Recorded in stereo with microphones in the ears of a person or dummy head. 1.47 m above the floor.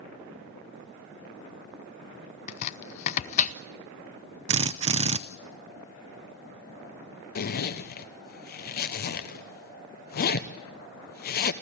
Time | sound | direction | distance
2.5 | chopping | 40° left (ahead or behind) | 0.6 m
4.5 | a drill | 35° right (ahead or behind) | 0.5 m
7.3 | a zipper | 50° left (ahead or behind) | 0.9 m